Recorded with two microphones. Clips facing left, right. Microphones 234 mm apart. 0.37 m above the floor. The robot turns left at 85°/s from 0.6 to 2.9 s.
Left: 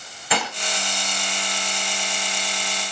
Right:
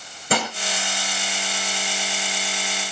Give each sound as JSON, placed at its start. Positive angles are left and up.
{"t": 0.3, "sound": "dishes clattering", "side_deg": -45, "distance_m": 4.5}